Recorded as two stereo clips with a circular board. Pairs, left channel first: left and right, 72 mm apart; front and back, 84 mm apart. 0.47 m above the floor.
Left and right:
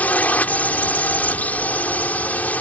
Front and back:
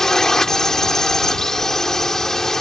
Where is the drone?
75° left.